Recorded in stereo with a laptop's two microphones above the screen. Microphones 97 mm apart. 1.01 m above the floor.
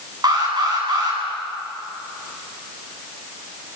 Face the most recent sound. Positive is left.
turn(degrees=-45)  # may be behind; listen again after turning